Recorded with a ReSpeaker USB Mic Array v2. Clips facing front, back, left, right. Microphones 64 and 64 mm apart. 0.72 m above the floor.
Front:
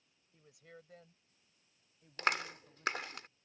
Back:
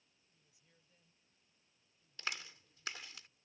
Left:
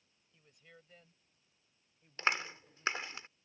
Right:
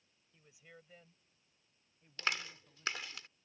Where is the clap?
30° left.